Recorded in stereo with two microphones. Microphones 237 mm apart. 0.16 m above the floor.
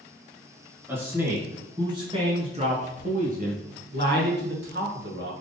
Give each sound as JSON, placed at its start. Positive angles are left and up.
{"t": 0.9, "sound": "a man speaking", "side_deg": -10, "distance_m": 2.0}